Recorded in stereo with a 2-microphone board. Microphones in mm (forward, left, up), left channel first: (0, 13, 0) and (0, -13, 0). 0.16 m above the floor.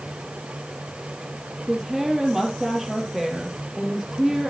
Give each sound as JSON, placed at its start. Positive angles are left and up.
{"t": 1.7, "sound": "a woman speaking", "side_deg": -15, "distance_m": 3.5}